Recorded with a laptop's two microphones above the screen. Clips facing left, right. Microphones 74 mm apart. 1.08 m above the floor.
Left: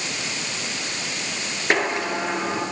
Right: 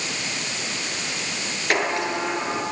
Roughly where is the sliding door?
Left.